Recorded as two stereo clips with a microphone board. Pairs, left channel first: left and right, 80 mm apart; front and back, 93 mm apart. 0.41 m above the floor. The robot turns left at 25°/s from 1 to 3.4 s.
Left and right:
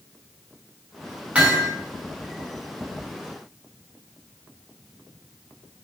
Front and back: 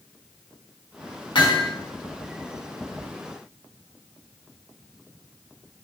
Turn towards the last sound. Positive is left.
turn(degrees=-70)